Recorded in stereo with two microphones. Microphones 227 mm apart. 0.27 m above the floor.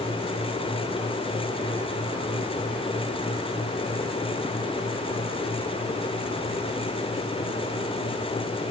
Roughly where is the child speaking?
No child speaking in this recording.